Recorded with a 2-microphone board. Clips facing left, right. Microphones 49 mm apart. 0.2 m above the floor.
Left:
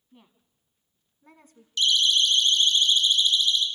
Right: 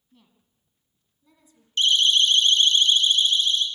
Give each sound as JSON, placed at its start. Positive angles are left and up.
{"t": 0.1, "sound": "a woman speaking", "side_deg": 20, "distance_m": 2.0}
{"t": 1.8, "sound": "a siren", "side_deg": -40, "distance_m": 2.5}